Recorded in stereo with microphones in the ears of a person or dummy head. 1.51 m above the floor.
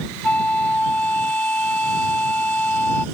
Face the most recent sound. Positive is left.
turn(degrees=5)  # may be behind; listen again after turning